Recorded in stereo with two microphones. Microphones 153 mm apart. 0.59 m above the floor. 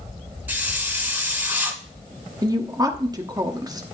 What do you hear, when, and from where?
0.5 s a hiss: 15° right (ahead or behind), 2 m
2.4 s a woman speaking: 25° right (ahead or behind), 1.0 m